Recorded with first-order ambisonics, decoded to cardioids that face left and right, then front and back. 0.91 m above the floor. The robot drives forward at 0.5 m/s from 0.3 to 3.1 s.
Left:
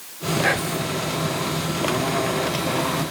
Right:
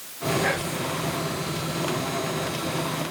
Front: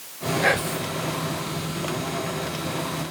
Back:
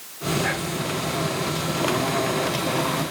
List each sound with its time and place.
0.4 s whispering: 25° left, 1.5 m; by 0.9 s 30° left, 1.4 m